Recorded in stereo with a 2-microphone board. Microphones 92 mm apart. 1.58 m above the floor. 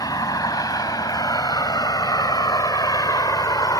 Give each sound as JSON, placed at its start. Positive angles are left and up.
{"t": 0.0, "sound": "a vehicle", "side_deg": 45}